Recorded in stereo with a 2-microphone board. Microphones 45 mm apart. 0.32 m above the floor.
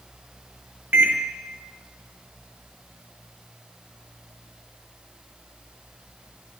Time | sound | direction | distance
0.9 | a microwave | 50° right (ahead or behind) | 1.0 m